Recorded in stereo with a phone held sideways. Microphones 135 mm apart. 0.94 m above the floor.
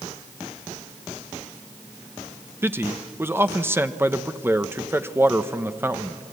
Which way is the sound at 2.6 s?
15° right (ahead or behind).